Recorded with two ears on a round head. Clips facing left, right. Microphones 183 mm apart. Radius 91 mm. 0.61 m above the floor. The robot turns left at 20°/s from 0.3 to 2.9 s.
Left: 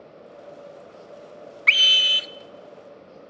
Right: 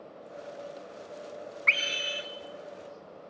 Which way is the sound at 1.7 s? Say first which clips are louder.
Left 2 dB; 45° left (ahead or behind).